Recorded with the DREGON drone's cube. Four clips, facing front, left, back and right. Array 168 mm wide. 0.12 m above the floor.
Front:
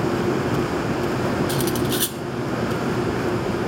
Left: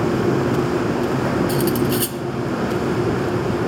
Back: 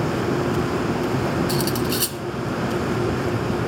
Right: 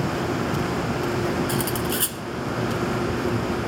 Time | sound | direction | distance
1.5 | cutlery clinking | 25° right | 0.7 m